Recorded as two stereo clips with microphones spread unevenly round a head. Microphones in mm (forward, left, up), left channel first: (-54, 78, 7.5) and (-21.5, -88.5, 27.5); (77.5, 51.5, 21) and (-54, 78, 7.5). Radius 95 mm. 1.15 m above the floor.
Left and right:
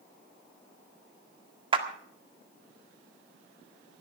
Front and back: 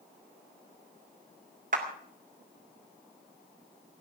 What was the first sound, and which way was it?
A clap, 140° right.